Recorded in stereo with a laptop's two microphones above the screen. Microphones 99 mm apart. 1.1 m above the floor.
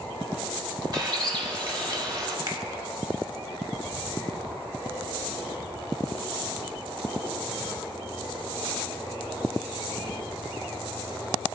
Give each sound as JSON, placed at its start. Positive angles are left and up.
{"t": 0.9, "sound": "a bird", "side_deg": -45, "distance_m": 1.2}
{"t": 2.5, "sound": "a finger snap", "side_deg": -45, "distance_m": 1.7}